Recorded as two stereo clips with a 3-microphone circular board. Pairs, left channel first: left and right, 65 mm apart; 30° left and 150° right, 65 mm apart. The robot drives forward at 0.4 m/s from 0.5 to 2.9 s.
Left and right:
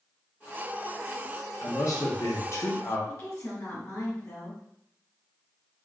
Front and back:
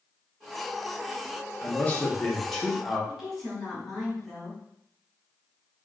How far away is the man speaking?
About 0.8 m.